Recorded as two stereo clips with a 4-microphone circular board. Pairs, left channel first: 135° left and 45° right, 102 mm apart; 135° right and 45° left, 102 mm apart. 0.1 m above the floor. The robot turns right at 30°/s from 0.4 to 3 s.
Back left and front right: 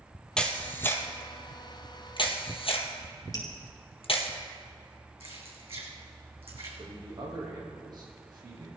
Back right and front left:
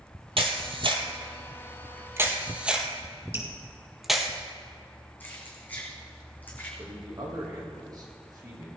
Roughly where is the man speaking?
Ahead.